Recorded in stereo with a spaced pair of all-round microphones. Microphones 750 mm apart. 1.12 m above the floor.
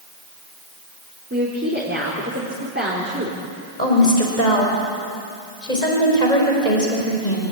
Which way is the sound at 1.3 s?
15° right (ahead or behind).